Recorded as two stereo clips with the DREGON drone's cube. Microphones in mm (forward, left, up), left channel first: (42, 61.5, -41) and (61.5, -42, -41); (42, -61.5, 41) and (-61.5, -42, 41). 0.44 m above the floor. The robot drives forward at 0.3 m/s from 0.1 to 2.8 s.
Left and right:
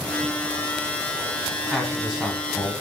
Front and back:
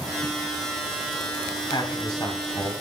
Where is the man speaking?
5° left, 1.1 m.